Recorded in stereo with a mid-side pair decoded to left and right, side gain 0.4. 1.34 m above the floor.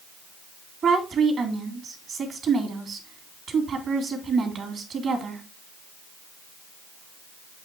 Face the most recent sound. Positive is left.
turn(degrees=-60)